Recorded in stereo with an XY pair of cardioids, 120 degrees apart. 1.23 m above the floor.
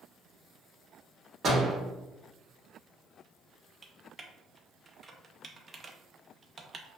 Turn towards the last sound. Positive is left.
turn(degrees=-30)